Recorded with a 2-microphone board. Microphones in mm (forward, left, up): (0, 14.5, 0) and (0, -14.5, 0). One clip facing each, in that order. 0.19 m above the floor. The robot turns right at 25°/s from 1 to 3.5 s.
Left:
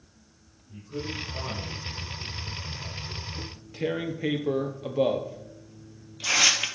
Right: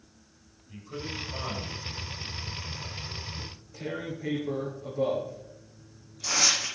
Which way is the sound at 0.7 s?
50° right (ahead or behind).